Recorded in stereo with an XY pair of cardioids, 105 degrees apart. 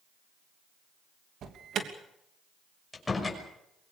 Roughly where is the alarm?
Ahead right.